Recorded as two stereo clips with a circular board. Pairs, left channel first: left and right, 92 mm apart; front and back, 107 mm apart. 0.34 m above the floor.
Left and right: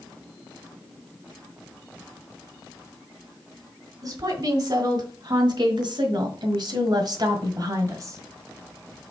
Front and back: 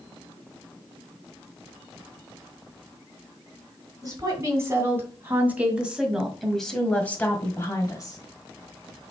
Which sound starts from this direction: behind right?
A woman speaking, at 4.0 s.